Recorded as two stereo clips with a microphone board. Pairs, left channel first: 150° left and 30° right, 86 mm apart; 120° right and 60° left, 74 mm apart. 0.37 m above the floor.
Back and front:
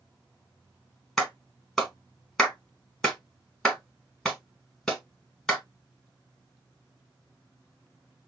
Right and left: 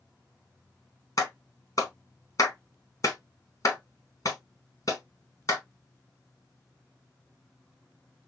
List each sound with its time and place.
1.2 s a clap: 125° right, 1.4 m